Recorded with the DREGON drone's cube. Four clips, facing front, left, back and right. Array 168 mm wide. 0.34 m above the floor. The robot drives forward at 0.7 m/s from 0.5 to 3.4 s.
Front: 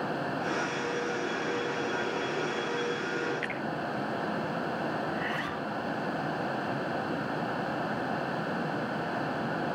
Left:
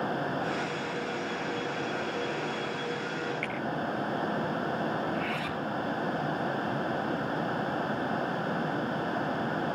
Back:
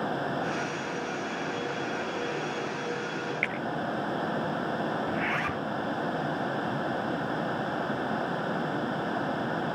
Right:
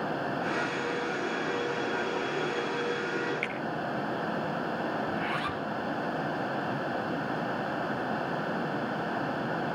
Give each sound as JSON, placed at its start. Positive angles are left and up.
{"t": 3.4, "sound": "a finger snap", "azimuth_deg": 180, "distance_m": 5.0}
{"t": 5.1, "sound": "a zipper", "azimuth_deg": -160, "distance_m": 1.3}